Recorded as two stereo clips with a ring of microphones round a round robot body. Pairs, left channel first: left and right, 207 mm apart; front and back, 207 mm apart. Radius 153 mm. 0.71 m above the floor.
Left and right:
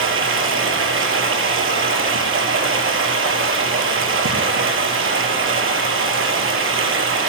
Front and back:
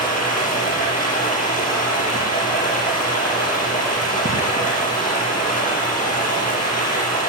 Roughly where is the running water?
Ahead right.